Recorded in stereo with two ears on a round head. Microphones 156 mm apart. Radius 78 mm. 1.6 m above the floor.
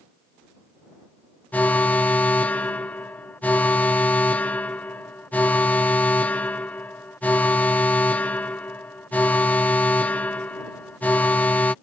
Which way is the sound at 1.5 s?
10° left (ahead or behind).